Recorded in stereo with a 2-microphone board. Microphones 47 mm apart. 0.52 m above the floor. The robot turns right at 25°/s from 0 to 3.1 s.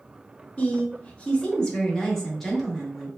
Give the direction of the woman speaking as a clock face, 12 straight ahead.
8 o'clock.